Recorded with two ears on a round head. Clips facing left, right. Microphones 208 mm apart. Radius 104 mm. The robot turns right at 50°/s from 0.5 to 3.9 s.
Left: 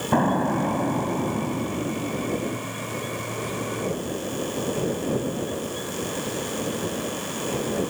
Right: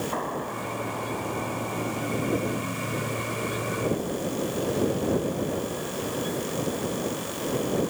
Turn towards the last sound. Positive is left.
turn(degrees=-105)